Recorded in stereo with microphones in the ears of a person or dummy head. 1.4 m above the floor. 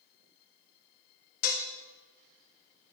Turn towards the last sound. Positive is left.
turn(degrees=45)  # may be behind; listen again after turning